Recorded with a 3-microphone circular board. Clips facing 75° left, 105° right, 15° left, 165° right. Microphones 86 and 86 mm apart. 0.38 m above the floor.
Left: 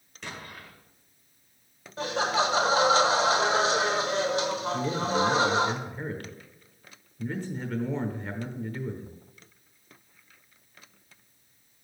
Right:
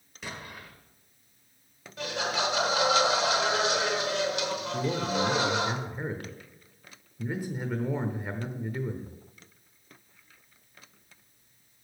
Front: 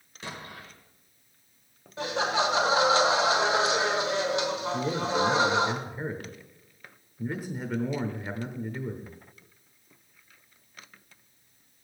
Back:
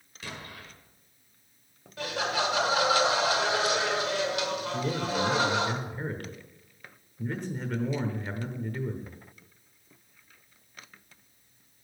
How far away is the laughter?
About 1.3 m.